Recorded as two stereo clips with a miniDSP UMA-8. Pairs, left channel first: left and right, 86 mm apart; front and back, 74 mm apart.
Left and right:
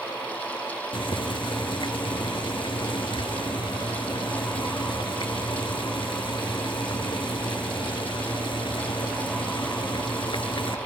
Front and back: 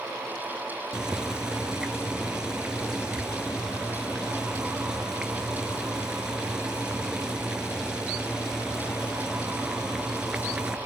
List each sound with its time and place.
0.9 s boiling: 100° left, 1.2 m